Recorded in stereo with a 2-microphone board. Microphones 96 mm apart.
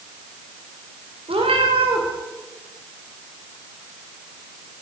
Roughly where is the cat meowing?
Right.